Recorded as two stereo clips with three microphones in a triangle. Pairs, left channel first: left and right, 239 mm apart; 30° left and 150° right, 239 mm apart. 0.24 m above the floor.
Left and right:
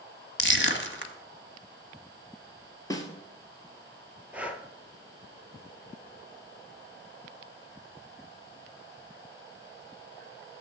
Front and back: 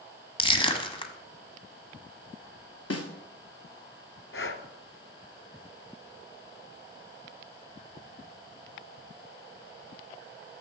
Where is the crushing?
90° left, 1.1 m.